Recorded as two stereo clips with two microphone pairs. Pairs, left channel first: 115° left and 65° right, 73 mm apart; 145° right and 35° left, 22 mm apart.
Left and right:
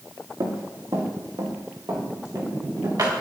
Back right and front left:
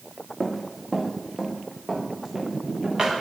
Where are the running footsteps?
60° right, 3 m; by 3.1 s 30° right, 6.5 m.